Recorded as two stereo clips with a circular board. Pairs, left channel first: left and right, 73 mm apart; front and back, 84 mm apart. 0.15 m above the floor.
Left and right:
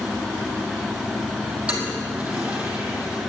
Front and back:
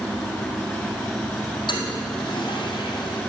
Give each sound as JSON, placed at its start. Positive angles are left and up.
{"t": 1.7, "sound": "a toilet flushing", "azimuth_deg": -20, "distance_m": 2.5}